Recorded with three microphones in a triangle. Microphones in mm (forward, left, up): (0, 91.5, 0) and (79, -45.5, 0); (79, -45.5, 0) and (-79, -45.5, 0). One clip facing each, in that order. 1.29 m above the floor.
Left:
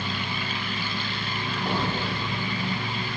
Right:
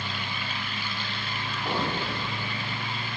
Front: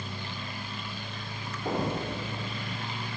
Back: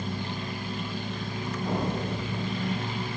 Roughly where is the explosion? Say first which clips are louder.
Left 1 dB, even; ahead left.